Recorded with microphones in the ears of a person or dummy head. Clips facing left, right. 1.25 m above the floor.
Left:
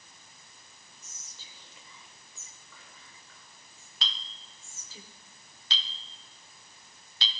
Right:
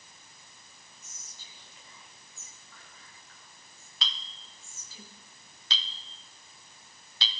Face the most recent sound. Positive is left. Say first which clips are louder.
# right 1 dB
turn(degrees=-70)  # may be behind; listen again after turning